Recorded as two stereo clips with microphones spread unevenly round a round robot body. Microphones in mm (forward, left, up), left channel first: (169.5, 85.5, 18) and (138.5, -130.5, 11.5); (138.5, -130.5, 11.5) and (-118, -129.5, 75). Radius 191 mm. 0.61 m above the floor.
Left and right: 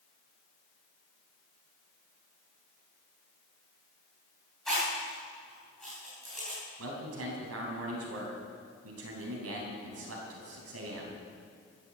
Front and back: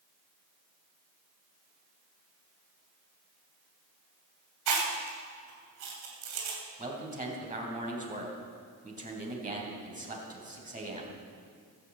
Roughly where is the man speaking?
Behind right.